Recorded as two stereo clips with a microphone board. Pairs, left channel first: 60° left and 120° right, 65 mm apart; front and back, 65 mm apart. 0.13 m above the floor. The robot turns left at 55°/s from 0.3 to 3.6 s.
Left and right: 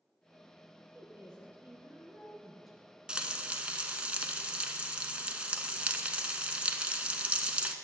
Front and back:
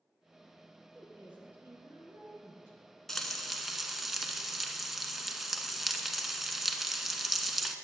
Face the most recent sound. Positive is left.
turn(degrees=-105)